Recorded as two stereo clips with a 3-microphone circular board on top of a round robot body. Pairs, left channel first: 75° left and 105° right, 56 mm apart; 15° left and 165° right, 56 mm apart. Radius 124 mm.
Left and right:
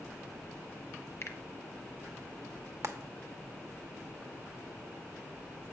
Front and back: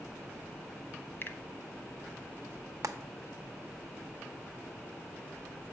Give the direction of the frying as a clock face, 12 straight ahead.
5 o'clock.